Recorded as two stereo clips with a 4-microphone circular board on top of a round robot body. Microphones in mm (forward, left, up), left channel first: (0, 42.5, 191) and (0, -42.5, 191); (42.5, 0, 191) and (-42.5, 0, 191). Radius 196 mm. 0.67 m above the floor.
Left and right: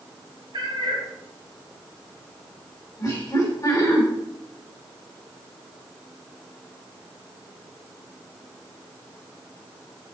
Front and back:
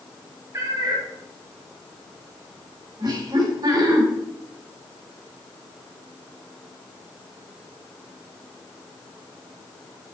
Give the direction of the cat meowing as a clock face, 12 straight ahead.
4 o'clock.